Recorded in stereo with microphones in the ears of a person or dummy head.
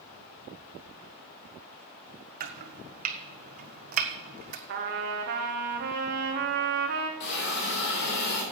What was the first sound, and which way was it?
Chopping, 50° right (ahead or behind).